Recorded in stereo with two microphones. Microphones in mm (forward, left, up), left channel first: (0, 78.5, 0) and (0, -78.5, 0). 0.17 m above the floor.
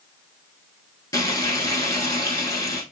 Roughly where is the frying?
Left.